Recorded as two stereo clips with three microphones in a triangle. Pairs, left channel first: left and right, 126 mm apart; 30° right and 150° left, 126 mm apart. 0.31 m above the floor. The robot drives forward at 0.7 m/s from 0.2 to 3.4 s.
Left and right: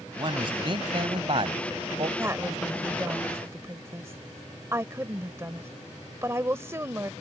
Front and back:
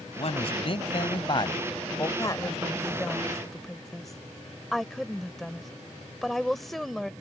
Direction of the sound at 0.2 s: 50° right.